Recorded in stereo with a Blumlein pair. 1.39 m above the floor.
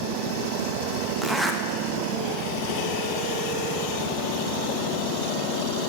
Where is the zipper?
5° right, 0.5 m.